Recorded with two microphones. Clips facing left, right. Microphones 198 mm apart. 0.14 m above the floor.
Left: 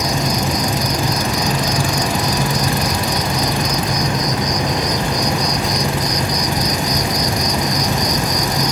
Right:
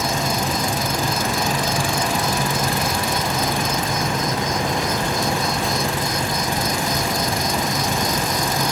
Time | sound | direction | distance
0.0 | an insect | 20° left (ahead or behind) | ?